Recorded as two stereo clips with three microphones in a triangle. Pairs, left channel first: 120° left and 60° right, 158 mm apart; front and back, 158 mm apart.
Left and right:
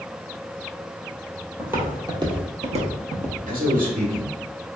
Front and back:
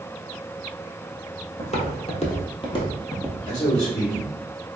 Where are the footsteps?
15° left, 1.0 m; by 3.4 s 65° right, 1.1 m.